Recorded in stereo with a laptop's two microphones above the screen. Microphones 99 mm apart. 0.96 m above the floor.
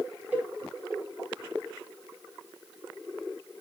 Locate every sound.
0.3 s a cowbell: 20° right (ahead or behind), 2.5 m